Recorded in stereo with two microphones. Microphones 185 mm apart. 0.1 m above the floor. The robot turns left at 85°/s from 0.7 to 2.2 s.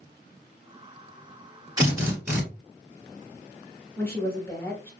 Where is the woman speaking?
15° left (ahead or behind), 1.3 m.